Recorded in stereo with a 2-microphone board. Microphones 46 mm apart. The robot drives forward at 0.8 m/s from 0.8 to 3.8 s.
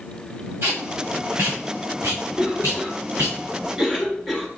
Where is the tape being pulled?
60° right (ahead or behind), 4 m; by 3.4 s 85° right, 3.5 m.